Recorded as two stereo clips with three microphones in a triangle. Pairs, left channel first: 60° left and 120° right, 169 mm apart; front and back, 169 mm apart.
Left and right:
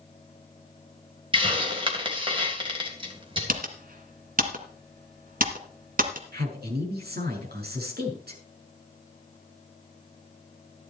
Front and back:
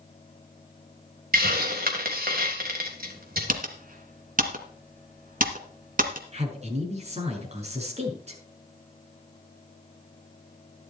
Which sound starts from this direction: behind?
A hiss, at 1.3 s.